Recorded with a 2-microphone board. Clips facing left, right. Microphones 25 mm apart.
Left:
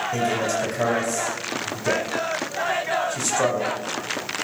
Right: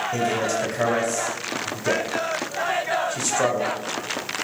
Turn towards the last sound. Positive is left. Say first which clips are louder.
# even
turn(degrees=-5)  # may be behind; listen again after turning